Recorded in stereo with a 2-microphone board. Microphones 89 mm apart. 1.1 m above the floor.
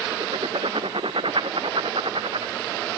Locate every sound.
0.1 s writing: 75° right (ahead or behind)